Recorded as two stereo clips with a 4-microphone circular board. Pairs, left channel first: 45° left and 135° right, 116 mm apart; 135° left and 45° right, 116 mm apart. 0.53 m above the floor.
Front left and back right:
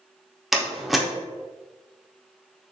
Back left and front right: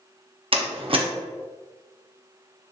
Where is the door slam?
45° right, 0.7 m.